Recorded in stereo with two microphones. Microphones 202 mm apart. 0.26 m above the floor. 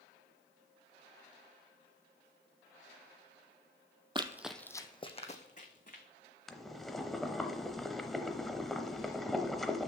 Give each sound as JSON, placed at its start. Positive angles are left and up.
{"t": 4.2, "sound": "running footsteps", "side_deg": -25, "distance_m": 0.6}
{"t": 6.5, "sound": "boiling", "side_deg": 0, "distance_m": 0.7}